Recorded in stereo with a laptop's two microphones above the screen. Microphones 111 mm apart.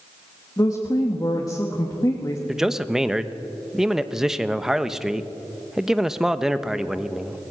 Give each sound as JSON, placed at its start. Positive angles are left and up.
{"t": 0.6, "sound": "a woman speaking", "side_deg": 35, "distance_m": 1.8}
{"t": 2.5, "sound": "a man speaking", "side_deg": -5, "distance_m": 1.0}